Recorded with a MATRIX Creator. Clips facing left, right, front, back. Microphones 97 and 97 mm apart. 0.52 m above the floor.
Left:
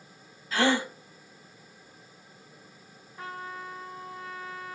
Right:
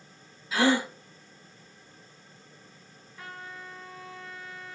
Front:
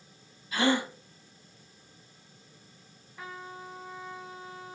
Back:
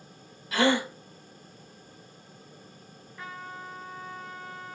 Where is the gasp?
170° right, 0.9 m.